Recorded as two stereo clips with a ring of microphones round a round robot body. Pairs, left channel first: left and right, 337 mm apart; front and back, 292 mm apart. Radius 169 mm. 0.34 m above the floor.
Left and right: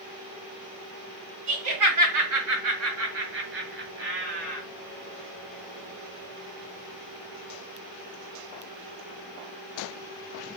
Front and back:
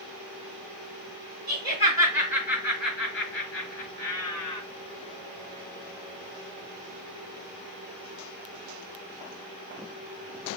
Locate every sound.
1.5 s laughter: 75° right, 2 m; by 4.6 s 25° right, 2.5 m